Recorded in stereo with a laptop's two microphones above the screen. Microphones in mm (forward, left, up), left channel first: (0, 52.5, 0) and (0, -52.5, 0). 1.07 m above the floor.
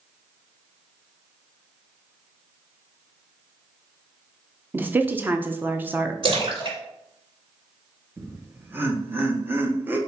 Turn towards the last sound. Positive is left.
turn(degrees=-20)  # may be behind; listen again after turning